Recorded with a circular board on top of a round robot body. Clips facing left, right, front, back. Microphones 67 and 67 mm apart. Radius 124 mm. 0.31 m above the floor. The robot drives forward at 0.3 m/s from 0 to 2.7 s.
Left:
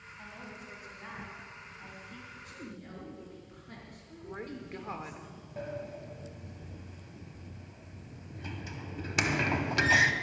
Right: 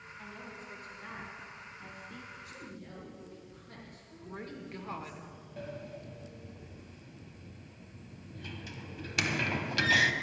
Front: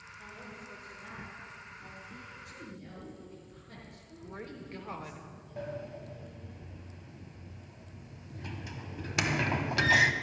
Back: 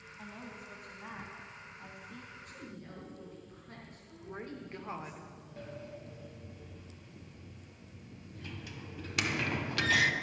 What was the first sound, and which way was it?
A woman speaking, 160° left.